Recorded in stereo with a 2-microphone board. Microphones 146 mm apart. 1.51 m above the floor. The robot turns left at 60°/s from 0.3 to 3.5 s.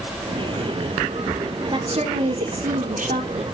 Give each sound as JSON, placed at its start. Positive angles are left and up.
{"t": 1.7, "sound": "a woman speaking", "azimuth_deg": -30, "distance_m": 3.5}